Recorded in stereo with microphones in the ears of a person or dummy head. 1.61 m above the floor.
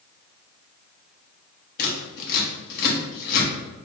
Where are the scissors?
60° left (ahead or behind), 1.1 m.